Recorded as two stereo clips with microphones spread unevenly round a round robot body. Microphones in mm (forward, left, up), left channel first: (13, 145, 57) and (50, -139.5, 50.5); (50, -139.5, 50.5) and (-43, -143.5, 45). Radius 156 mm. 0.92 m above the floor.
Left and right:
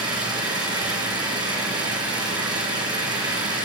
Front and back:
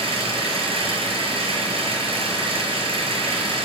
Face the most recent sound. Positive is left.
turn(degrees=-160)